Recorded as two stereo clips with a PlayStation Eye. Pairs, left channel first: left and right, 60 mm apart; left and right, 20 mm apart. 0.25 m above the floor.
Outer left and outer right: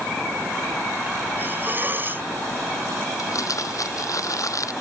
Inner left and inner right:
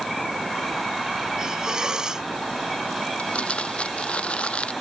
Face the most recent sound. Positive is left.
turn(degrees=60)  # may be behind; listen again after turning